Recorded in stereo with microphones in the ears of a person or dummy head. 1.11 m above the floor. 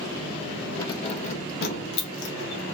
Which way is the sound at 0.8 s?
20° left (ahead or behind).